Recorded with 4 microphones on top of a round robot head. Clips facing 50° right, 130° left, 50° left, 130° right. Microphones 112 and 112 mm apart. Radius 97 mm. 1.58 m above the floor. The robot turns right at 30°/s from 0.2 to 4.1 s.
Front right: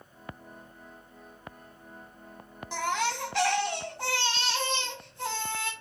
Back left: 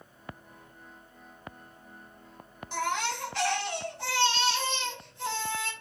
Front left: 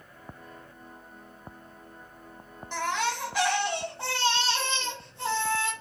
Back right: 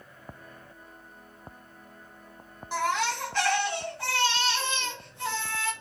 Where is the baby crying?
50° right, 0.5 m; by 5.7 s 10° right, 0.5 m.